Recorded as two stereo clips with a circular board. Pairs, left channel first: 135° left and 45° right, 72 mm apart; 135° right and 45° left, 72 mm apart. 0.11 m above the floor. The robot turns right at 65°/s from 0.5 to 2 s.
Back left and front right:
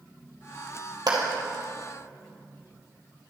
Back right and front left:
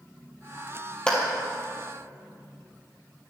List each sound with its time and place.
1.1 s a clap: 60° right, 2 m; by 1.2 s 50° right, 2 m